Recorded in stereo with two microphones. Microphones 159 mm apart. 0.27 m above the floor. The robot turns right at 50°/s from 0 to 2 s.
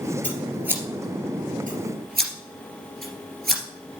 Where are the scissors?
10° left (ahead or behind), 2.5 m; by 3.6 s 75° right (ahead or behind), 2.5 m.